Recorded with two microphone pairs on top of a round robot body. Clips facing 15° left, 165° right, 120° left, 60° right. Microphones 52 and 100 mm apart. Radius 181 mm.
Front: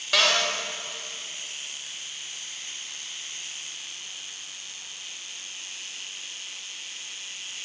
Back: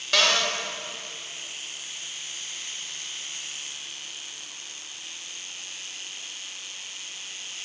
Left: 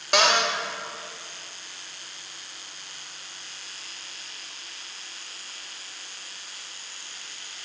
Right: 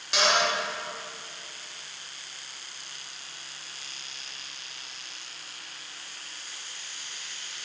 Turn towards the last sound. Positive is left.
turn(degrees=100)